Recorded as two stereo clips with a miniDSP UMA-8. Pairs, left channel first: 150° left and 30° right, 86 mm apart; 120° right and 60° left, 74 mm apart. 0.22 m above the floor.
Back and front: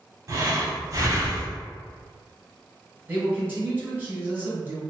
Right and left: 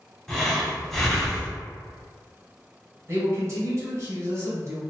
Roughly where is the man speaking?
Ahead left.